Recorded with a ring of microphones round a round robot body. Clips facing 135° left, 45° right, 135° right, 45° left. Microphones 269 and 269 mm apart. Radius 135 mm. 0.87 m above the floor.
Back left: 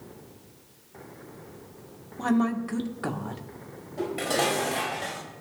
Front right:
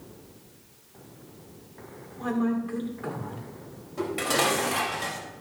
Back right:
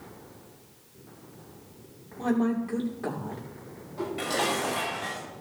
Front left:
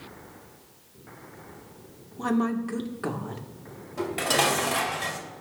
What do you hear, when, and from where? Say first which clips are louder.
2.2 s a woman speaking: back left 2 dB, even; 110° left, 1.8 m
4.0 s dishes clattering: even, front left 2 dB; 30° left, 3 m